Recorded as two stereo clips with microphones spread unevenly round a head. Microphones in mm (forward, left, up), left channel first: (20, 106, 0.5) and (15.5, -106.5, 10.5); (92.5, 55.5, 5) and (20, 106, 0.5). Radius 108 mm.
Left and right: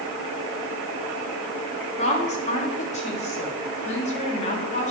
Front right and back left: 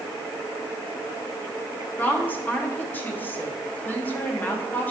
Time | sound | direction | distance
2.0 | a woman speaking | 30° left | 3 m